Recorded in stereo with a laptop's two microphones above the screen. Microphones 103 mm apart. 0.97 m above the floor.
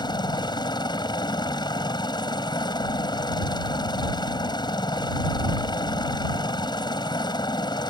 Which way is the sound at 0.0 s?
45° left (ahead or behind).